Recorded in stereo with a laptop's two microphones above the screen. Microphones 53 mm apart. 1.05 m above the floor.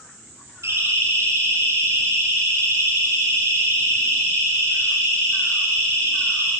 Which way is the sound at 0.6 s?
60° right (ahead or behind).